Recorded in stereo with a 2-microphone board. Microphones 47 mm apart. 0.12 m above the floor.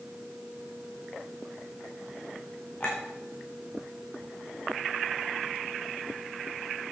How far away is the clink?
About 4.5 m.